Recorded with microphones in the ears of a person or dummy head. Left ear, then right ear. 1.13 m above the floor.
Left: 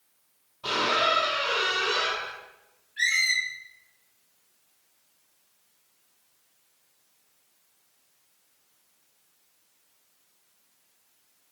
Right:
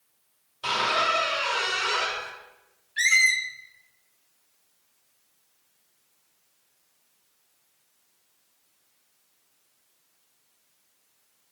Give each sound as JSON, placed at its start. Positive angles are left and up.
{"t": 0.6, "sound": "a squeak", "side_deg": -50, "distance_m": 1.3}
{"t": 3.0, "sound": "a squeak", "side_deg": -35, "distance_m": 0.7}